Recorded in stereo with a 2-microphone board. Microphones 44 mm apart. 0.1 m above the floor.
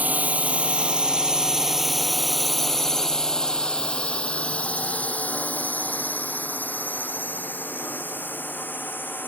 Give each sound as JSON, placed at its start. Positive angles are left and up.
{"t": 0.0, "sound": "a drone", "side_deg": -35}